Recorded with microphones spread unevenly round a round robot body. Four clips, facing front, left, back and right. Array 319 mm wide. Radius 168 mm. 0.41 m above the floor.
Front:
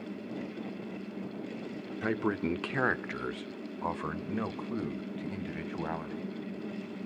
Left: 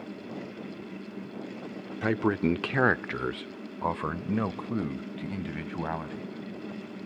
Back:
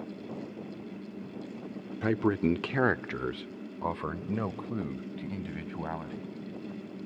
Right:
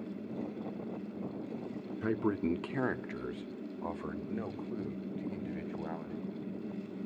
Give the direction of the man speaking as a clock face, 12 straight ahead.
7 o'clock.